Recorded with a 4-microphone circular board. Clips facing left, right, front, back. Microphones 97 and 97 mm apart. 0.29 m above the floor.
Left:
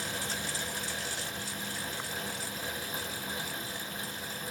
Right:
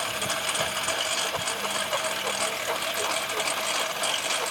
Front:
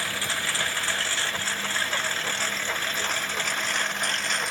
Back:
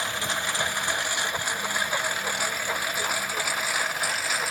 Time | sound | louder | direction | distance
0.0 | a lawn mower | right 7 dB, back 1 dB | 110° right | ?